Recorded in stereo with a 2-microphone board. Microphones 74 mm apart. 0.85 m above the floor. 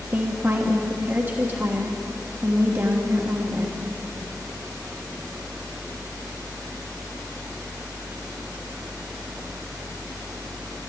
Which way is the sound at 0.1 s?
30° right (ahead or behind).